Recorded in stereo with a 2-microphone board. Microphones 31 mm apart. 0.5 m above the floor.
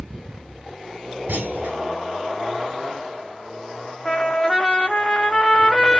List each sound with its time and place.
1.3 s a clunk: 65° right (ahead or behind), 1.0 m
4.0 s a trumpet: 25° left (ahead or behind), 0.6 m